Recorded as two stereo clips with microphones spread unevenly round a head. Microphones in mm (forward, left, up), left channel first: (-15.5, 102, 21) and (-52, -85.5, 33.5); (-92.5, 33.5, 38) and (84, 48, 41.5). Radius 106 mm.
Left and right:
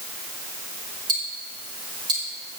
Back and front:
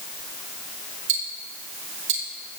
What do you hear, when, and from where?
1.1 s ticking: 30° right, 1.9 m